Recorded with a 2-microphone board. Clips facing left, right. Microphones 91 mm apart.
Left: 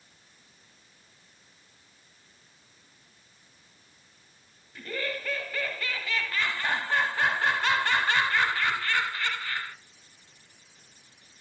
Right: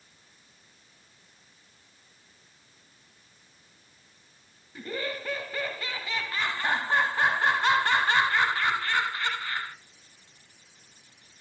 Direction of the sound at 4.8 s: 20° right (ahead or behind).